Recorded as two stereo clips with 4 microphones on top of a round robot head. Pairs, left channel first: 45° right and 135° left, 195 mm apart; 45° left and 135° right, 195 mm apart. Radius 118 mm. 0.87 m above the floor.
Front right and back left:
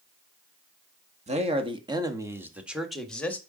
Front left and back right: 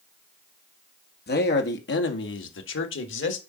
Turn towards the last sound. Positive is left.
turn(degrees=35)